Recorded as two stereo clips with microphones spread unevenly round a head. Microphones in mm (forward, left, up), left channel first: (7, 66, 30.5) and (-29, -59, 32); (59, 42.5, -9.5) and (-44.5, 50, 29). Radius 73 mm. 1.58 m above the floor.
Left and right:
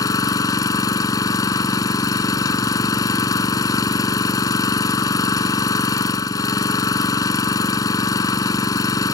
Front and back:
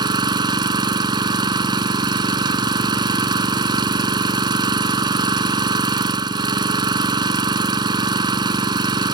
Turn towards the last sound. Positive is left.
turn(degrees=140)